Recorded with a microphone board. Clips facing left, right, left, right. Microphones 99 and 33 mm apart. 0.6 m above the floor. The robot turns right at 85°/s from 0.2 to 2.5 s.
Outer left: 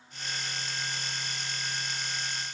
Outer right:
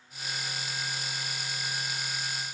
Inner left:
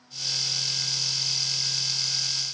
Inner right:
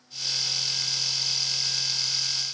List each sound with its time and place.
Only background noise.